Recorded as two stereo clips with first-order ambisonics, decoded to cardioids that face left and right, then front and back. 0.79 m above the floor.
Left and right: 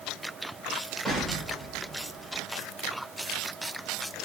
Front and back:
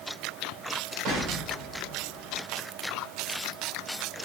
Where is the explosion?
Straight behind, 1.7 m.